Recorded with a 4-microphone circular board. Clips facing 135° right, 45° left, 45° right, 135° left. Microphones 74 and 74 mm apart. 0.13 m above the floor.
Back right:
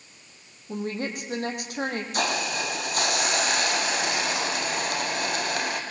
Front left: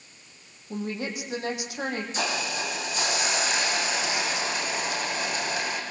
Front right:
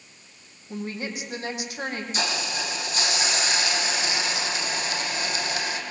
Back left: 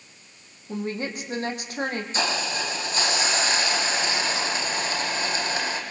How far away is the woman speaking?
About 6.5 m.